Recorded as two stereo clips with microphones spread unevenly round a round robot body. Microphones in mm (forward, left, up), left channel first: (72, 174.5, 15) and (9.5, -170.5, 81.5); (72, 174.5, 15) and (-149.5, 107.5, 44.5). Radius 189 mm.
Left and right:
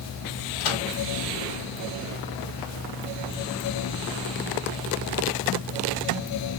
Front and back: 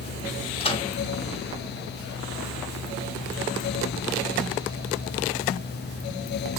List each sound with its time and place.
0.6 s a microwave: 85° left, 1.6 m